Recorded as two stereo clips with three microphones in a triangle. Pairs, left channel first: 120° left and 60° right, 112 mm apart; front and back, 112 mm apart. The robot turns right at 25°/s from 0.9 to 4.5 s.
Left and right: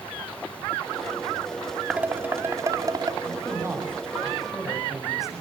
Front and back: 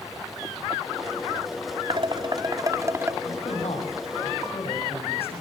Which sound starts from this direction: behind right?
Dishes clattering, at 1.9 s.